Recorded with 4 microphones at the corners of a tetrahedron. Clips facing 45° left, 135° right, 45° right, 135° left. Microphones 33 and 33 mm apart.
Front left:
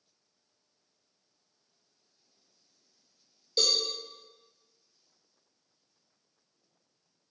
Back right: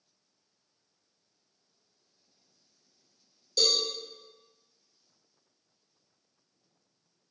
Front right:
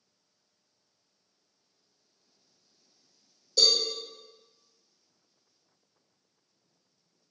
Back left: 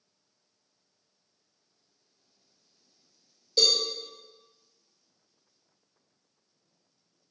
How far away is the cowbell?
About 1.8 m.